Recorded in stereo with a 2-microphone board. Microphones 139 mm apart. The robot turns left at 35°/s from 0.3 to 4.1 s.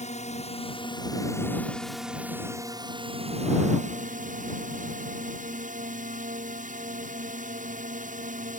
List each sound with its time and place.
0.0 s a drone: 60° left; by 8.6 s 75° right